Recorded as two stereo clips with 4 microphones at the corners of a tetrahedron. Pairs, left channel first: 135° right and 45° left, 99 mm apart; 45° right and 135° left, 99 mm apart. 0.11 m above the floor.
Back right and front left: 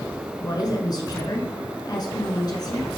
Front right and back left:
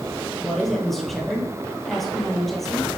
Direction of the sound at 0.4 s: 130° right.